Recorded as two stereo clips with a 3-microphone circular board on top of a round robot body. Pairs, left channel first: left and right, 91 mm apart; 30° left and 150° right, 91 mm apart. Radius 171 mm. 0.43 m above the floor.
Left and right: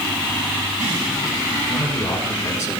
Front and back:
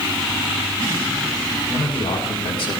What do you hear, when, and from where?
1.7 s a man speaking: 30° left, 5.5 m; by 2.8 s 35° left, 4.5 m